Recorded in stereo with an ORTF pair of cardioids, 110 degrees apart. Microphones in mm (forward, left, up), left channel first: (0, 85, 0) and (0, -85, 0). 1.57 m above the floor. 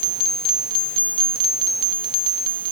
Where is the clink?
I don't hear a clink.